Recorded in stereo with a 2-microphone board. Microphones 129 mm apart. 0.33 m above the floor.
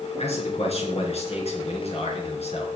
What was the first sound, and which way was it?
A man speaking, 55° left (ahead or behind).